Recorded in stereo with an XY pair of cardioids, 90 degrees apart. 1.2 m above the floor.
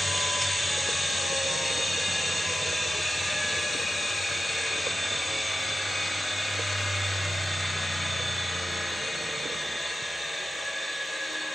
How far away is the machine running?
About 1.2 m.